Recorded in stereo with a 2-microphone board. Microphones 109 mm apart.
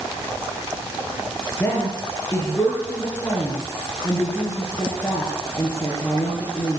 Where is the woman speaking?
20° left (ahead or behind), 4 m.